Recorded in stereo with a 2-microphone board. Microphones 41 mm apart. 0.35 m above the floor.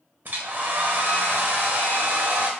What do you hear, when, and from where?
0.2 s a hair dryer: 45° right (ahead or behind), 0.6 m